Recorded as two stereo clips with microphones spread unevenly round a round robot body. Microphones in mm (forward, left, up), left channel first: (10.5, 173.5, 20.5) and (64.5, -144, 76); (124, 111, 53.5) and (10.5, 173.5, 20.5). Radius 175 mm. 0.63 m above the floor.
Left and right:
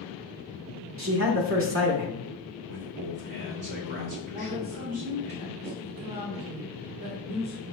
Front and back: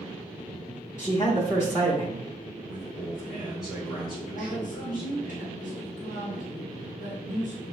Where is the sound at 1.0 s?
105° right, 0.9 m.